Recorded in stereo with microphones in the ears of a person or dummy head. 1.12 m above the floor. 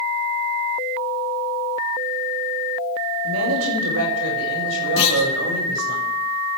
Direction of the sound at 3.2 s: 80° right.